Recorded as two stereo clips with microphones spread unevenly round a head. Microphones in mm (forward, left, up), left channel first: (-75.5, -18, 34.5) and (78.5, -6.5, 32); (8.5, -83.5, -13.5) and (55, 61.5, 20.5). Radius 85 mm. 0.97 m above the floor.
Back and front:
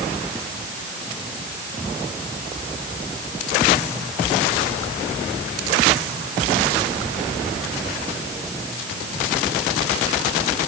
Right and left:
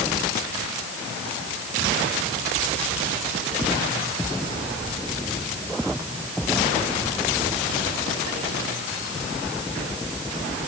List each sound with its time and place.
Only background noise.